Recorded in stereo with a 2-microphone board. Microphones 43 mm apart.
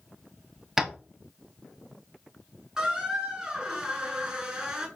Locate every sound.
0.8 s tapping: 10° right (ahead or behind), 0.7 m
2.8 s a squeak: 15° right (ahead or behind), 1.1 m